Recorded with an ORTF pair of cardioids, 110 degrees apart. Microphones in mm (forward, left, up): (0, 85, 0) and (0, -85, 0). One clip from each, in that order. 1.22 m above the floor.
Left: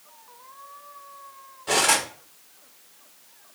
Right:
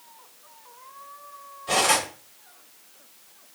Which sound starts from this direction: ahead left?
Cutlery clinking, at 1.7 s.